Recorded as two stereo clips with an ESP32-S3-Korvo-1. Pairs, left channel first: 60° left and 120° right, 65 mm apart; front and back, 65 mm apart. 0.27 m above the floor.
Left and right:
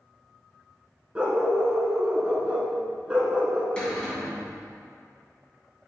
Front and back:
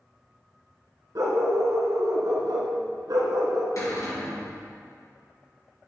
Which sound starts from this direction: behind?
A dog barking, at 1.1 s.